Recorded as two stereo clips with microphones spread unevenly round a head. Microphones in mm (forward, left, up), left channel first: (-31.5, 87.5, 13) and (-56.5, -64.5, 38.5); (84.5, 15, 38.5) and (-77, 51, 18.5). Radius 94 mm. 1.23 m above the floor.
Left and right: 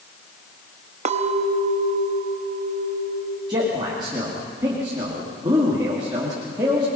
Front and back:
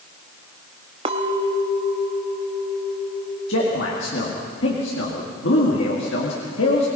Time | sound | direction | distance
1.1 | a clink | 130° right | 0.9 m
3.5 | a man speaking | 30° right | 2 m